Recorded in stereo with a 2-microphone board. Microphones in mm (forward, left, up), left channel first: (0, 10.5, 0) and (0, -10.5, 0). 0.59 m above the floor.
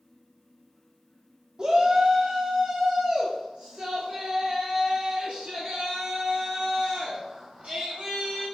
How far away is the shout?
About 1.2 m.